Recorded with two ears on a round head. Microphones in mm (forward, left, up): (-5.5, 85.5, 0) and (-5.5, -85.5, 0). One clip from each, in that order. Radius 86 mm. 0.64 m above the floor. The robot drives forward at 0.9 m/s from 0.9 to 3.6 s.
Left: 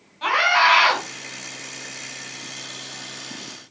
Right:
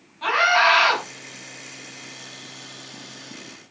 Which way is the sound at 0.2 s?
25° left (ahead or behind).